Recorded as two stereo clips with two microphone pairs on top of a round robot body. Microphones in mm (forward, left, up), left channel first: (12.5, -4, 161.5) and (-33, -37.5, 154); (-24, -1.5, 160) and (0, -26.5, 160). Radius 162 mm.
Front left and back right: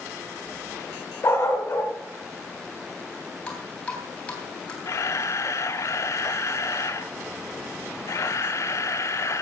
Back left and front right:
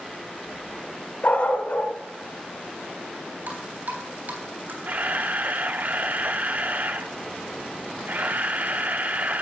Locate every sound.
1.2 s a dog barking: 85° left, 1.9 m
3.5 s dripping: 40° right, 4 m
4.8 s a camera shutter: straight ahead, 0.5 m